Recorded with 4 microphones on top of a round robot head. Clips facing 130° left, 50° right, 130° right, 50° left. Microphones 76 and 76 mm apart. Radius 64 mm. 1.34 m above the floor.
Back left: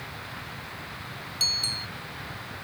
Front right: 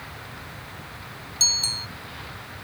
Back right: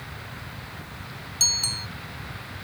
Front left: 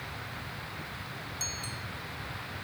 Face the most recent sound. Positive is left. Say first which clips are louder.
# front right 4 dB, back right 4 dB
turn(degrees=-115)